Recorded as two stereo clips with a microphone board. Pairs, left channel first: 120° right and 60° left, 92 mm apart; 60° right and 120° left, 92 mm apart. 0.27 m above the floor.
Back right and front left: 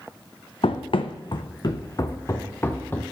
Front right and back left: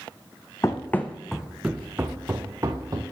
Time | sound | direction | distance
0.6 | running footsteps | 115° right | 0.6 m